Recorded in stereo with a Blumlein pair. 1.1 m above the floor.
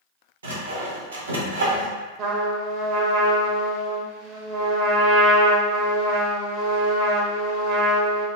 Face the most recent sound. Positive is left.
turn(degrees=-40)